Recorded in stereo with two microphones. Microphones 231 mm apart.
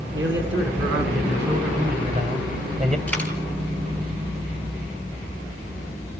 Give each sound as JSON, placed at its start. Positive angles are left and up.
{"t": 0.1, "sound": "a man speaking", "side_deg": -55, "distance_m": 5.5}
{"t": 3.1, "sound": "a dropped coin", "side_deg": 5, "distance_m": 3.5}